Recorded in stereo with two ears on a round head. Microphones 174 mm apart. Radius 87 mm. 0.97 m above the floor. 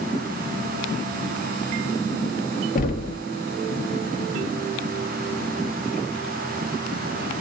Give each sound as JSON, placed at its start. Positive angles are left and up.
{"t": 2.8, "sound": "knocking", "side_deg": 45, "distance_m": 0.7}